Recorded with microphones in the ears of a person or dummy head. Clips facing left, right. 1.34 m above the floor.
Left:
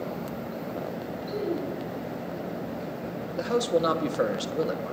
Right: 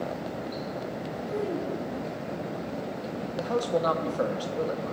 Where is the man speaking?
25° left (ahead or behind), 1.0 m.